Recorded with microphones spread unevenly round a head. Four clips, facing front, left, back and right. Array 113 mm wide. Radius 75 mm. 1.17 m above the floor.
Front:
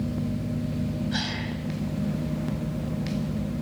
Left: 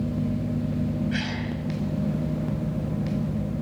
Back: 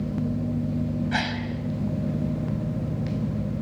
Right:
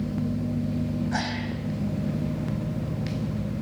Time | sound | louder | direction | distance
1.1 | a gasp | even, back 3 dB | 175° right | 5 m